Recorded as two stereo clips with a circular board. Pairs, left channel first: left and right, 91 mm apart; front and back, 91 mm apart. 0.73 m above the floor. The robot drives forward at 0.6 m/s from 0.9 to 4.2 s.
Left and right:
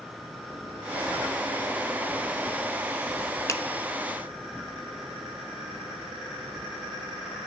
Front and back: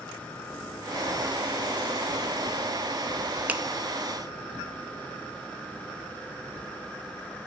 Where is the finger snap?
115° left, 0.7 m; by 3.6 s 125° left, 0.7 m.